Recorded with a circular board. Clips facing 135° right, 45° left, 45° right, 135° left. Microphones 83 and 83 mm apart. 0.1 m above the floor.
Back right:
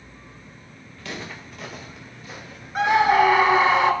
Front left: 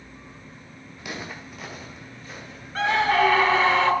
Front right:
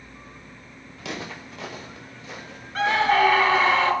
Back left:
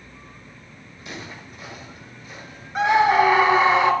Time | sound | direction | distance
1.0 | footsteps | 30° right | 2.5 m
2.8 | a scream | straight behind | 1.1 m